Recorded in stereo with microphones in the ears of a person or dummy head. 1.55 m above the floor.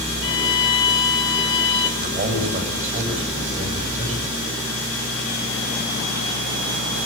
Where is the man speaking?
40° right (ahead or behind), 7.5 m.